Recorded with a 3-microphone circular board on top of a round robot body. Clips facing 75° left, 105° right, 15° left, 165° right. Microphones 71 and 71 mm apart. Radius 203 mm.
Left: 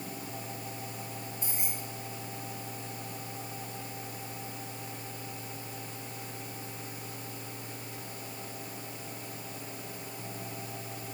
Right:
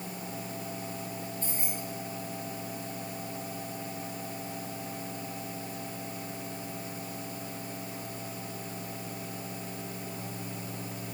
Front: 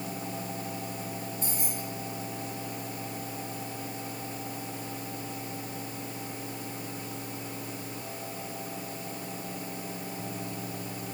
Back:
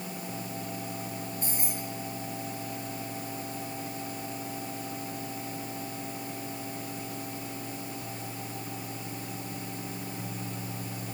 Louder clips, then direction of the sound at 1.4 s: Right 3 dB, even; 155° left.